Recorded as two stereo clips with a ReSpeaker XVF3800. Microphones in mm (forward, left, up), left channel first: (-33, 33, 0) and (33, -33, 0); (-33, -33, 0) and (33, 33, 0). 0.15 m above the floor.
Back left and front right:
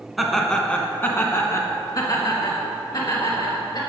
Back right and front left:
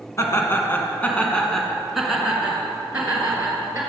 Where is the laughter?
135° right, 1.2 m; by 3.8 s 110° left, 2.5 m.